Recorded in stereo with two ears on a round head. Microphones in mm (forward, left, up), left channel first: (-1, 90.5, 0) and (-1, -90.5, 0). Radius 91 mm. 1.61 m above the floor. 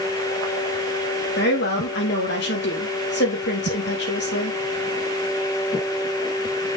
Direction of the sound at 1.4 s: 55° left (ahead or behind).